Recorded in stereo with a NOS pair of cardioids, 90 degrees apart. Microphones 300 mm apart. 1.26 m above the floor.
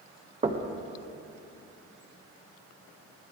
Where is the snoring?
I don't hear snoring.